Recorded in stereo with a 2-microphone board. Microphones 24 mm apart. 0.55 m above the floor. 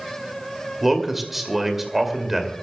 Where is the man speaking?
5° right (ahead or behind), 2.5 m.